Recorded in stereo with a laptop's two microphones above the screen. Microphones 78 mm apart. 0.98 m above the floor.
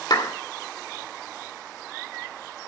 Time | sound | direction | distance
0.1 | a clap | 60° left (ahead or behind) | 2 m